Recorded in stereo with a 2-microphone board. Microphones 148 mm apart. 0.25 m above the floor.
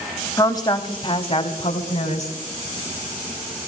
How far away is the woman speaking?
About 1.0 m.